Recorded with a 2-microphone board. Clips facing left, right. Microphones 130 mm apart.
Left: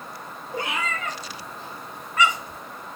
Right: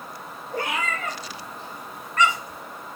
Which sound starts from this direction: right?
A cat meowing, at 0.5 s.